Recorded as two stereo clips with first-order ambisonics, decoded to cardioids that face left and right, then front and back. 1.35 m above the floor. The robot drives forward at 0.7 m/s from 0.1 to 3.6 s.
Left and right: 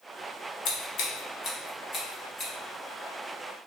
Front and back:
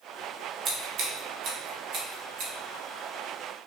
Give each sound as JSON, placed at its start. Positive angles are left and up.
{"t": 0.7, "sound": "scissors", "azimuth_deg": 125, "distance_m": 1.0}